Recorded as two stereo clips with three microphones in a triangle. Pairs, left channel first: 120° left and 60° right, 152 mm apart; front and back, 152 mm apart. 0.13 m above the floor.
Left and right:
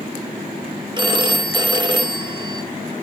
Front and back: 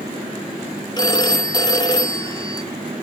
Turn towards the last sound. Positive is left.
turn(degrees=-35)